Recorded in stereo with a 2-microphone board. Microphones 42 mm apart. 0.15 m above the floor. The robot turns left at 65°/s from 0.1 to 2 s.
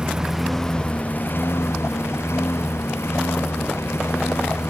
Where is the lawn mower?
20° right (ahead or behind); by 4.7 s 90° left.